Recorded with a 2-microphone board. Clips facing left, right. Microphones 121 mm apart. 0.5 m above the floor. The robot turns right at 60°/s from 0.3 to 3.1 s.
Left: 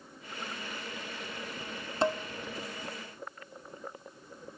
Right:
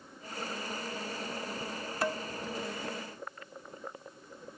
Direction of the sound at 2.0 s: 25° left (ahead or behind).